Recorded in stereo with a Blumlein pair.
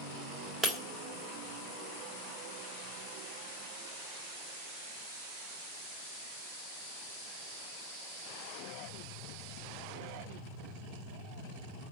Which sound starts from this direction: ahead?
Breaking glass, at 0.6 s.